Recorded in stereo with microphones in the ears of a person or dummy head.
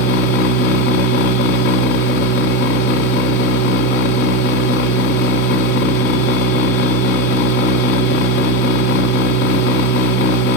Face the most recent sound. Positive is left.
turn(degrees=55)  # may be behind; listen again after turning